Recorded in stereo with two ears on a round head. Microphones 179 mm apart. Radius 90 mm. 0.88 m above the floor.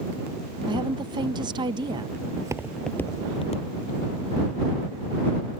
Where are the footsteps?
25° right (ahead or behind); by 4.2 s 50° left (ahead or behind).